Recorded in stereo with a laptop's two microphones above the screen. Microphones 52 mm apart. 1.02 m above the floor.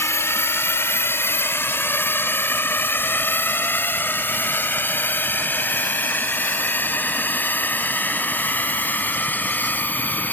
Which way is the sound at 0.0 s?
50° left (ahead or behind).